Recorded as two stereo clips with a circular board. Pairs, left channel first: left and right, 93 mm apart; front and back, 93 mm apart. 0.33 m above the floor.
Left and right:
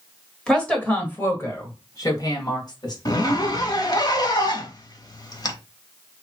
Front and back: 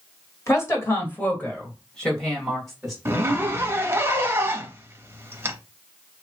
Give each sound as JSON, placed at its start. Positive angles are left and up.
{"t": 0.5, "sound": "a woman speaking", "azimuth_deg": 15, "distance_m": 1.6}
{"t": 3.0, "sound": "a zipper", "azimuth_deg": 120, "distance_m": 0.7}